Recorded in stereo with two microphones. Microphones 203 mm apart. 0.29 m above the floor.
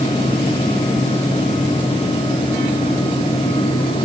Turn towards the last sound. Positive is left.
No sound to turn to.